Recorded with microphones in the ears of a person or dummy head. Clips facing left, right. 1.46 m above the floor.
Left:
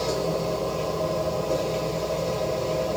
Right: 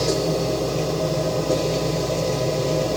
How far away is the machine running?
About 1.3 m.